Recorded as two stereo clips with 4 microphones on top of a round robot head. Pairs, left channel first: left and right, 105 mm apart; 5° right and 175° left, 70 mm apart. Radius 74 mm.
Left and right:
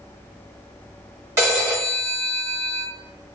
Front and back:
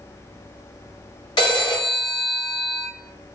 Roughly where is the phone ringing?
Ahead.